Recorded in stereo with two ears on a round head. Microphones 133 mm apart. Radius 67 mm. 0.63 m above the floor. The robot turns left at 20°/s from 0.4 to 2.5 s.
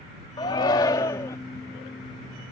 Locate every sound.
0.4 s a shout: 30° left (ahead or behind); by 1.4 s 20° left (ahead or behind)